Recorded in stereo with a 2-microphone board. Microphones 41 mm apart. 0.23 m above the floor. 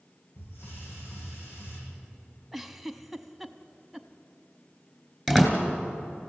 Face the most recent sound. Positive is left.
turn(degrees=10)  # may be behind; listen again after turning